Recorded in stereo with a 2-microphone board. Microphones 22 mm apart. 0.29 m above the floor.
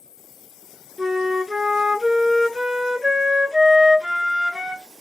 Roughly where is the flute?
Right.